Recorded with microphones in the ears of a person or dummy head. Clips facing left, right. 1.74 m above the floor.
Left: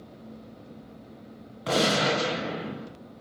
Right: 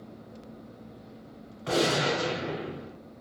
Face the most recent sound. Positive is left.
turn(degrees=50)  # may be behind; listen again after turning